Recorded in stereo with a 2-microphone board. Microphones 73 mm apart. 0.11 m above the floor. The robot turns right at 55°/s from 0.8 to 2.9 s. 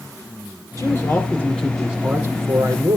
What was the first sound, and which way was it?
A man speaking, 130° left.